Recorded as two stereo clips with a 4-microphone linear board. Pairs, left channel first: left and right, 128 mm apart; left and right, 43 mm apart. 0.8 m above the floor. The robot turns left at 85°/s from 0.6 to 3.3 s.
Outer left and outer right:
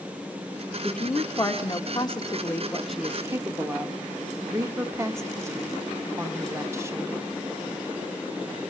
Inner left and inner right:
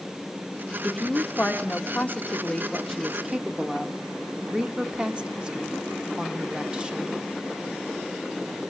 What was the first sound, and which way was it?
A woman speaking, 175° left.